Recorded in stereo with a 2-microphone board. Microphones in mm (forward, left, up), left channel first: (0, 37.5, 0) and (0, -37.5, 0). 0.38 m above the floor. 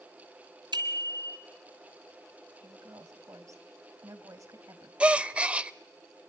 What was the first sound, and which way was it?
A bicycle bell, 80° right.